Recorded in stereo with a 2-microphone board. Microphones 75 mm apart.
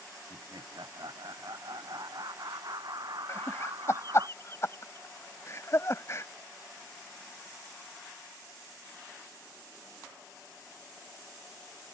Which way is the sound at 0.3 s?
65° right (ahead or behind).